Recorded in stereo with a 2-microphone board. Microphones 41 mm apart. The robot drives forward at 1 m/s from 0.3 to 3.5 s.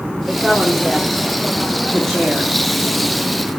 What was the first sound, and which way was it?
A woman speaking, 5° left (ahead or behind).